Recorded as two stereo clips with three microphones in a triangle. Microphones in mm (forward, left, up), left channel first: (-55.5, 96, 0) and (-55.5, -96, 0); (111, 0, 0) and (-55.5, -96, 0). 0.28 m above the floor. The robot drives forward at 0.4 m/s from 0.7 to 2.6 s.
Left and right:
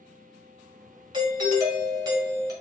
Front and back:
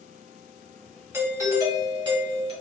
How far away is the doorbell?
About 1.4 m.